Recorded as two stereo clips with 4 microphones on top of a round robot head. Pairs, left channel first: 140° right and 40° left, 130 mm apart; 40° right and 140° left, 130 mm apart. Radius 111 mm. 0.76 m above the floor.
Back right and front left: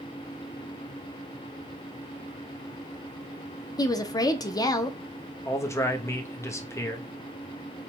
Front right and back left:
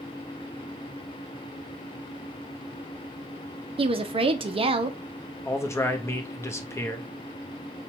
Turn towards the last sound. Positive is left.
turn(degrees=-90)